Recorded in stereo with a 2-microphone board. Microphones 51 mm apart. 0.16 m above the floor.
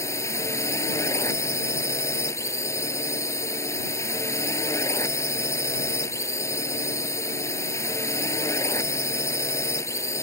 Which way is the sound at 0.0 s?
60° left (ahead or behind).